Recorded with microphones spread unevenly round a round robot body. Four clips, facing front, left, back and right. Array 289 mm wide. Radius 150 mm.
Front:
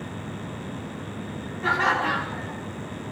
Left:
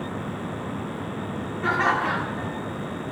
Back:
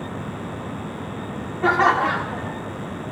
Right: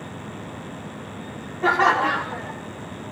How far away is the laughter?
About 3 m.